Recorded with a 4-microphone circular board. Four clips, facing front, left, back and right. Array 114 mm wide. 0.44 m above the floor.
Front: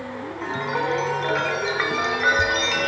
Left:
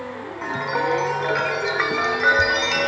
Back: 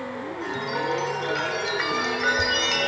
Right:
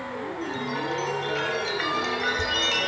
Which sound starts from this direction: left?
A chime, at 0.4 s.